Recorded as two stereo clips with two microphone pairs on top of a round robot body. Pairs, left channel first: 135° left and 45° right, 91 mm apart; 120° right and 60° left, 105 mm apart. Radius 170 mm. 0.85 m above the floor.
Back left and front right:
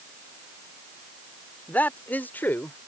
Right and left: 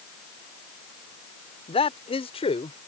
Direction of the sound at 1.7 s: 150° right.